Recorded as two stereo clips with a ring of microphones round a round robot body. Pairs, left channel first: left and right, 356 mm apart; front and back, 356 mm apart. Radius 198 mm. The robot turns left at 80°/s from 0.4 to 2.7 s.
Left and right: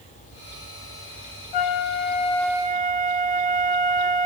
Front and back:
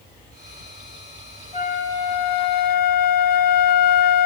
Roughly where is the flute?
Left.